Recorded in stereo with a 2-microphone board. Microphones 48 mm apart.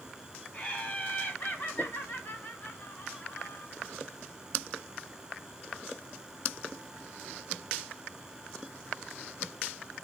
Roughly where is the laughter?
Left.